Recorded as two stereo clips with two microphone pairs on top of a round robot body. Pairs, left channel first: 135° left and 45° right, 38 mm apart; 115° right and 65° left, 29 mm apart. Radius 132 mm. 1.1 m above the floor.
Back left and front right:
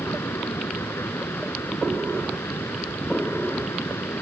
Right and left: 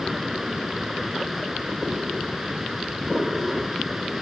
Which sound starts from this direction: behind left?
Running water, at 0.0 s.